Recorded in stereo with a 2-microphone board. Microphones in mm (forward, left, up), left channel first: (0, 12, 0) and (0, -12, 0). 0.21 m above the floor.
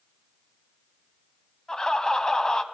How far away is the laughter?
About 1.0 m.